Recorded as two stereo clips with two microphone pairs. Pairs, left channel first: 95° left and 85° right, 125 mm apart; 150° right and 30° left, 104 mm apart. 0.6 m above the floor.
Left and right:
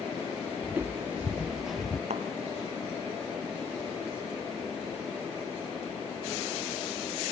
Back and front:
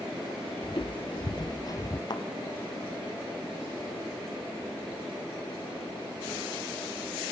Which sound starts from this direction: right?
A thud, at 2.1 s.